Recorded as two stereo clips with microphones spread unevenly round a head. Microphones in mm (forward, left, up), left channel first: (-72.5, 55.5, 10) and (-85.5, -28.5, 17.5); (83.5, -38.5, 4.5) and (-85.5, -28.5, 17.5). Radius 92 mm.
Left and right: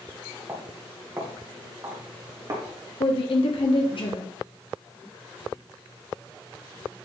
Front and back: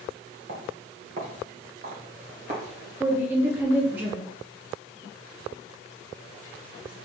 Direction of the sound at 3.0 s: 95° left.